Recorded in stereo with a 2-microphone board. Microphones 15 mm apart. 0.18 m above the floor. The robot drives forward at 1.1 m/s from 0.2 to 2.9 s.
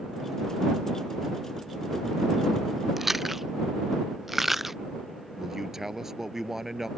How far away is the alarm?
No alarm in this recording.